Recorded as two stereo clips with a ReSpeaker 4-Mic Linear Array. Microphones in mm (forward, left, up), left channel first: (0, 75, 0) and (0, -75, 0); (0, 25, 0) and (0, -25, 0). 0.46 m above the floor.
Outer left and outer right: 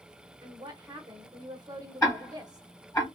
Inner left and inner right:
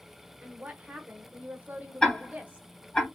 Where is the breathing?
I don't hear breathing.